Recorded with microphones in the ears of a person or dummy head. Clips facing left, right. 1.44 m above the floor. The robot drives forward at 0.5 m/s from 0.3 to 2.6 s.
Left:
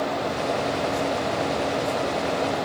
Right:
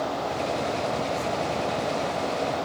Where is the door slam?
No door slam in this recording.